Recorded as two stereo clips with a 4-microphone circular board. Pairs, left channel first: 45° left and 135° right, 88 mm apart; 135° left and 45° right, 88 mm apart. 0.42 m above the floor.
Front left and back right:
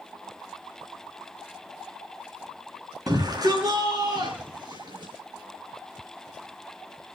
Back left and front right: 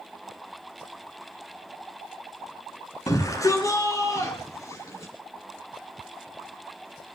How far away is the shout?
About 4 m.